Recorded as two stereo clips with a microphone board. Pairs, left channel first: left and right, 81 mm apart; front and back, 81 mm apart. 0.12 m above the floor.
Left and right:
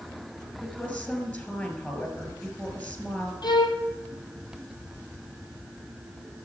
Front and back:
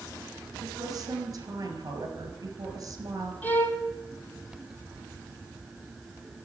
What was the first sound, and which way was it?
A woman speaking, 155° left.